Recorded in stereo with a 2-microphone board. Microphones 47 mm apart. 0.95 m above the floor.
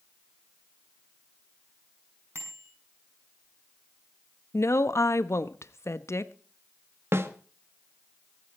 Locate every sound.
2.4 s a bicycle bell: 60° right (ahead or behind), 6.5 m
4.5 s a woman speaking: 70° left (ahead or behind), 1.0 m
7.1 s a snare drum: 60° right (ahead or behind), 1.5 m